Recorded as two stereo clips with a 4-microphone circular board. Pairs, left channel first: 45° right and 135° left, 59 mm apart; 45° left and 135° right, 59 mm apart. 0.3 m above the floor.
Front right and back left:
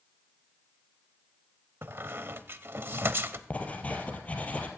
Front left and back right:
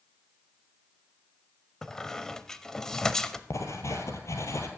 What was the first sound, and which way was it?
A squeak, 120° left.